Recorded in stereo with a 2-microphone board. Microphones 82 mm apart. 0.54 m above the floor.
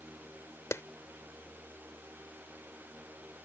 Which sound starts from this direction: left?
A clap, at 0.7 s.